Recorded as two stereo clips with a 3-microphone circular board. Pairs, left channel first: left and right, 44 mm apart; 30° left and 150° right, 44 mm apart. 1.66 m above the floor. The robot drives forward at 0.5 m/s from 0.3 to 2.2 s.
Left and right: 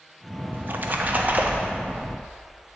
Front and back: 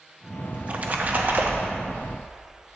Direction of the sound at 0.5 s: 95° right.